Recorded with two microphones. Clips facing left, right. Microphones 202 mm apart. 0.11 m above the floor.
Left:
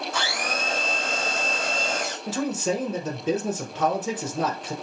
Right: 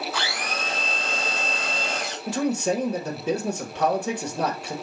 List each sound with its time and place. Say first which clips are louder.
0.1 s a blender: left 2 dB; 45° left (ahead or behind), 2 m
2.3 s a man speaking: right 3 dB; 5° left (ahead or behind), 1.2 m